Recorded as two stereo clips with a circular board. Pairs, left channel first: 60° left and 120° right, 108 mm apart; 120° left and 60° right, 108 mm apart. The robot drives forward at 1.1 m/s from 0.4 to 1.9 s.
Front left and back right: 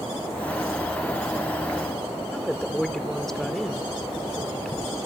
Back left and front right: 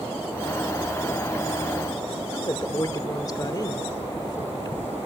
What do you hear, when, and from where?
2.3 s a woman speaking: 145° left, 1.2 m